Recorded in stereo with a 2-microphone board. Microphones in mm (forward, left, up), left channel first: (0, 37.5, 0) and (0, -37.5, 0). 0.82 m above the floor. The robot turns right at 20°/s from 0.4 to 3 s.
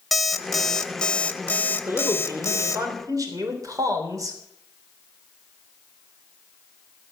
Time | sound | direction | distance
0.1 | an alarm clock | straight ahead | 0.9 m
1.9 | a man speaking | 35° right (ahead or behind) | 3.5 m